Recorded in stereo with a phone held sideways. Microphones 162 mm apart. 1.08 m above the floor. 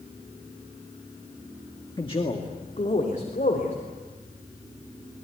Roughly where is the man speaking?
Left.